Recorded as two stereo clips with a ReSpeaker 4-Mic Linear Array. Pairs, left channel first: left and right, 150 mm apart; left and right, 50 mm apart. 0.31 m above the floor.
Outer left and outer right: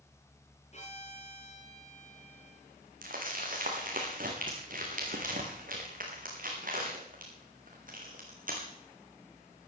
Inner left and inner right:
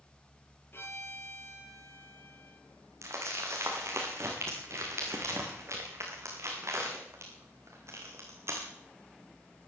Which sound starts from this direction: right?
Crumpling, at 3.0 s.